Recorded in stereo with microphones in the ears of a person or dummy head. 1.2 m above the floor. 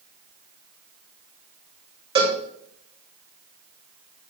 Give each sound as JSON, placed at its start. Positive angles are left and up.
{"t": 2.1, "sound": "a cowbell", "side_deg": -30, "distance_m": 2.5}